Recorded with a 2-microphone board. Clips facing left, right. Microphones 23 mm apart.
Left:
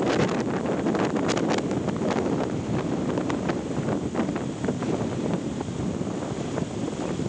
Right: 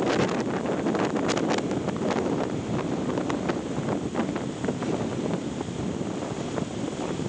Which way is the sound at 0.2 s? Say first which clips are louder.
Left 1 dB; 25° right (ahead or behind).